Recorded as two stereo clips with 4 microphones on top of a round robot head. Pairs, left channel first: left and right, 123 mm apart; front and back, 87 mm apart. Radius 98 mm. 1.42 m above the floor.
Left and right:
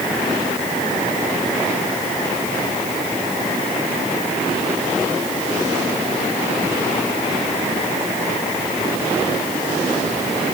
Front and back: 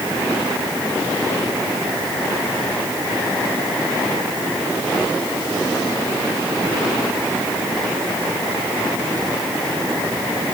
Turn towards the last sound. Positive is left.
No sound to turn to.